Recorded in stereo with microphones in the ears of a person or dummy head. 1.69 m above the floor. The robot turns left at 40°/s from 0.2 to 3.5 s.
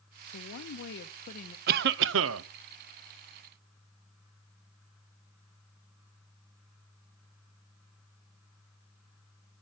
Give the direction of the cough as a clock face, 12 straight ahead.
2 o'clock.